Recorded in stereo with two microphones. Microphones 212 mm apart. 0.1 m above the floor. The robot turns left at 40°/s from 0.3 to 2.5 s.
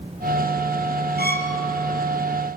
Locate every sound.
1.2 s a violin: 55° left (ahead or behind), 2.5 m; by 1.6 s 45° left (ahead or behind), 2.5 m